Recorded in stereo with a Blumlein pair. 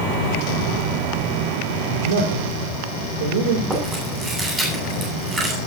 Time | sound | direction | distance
2.0 | a man speaking | 60° right | 3 m
3.7 | chewing | 15° right | 9 m